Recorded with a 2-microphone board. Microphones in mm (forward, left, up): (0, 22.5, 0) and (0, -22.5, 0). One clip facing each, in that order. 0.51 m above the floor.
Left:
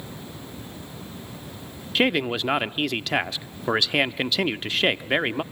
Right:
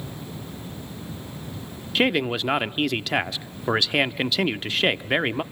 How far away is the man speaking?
About 0.6 m.